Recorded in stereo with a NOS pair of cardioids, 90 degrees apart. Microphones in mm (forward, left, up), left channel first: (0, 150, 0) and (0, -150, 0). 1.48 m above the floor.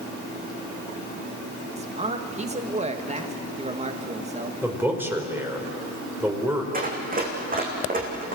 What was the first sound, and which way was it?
A man speaking, 20° right.